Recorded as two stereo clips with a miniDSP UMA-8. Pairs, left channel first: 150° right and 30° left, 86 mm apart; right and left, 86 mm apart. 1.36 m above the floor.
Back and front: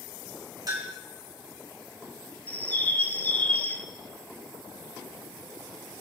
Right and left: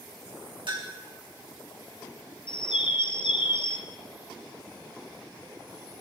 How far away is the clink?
About 2.5 m.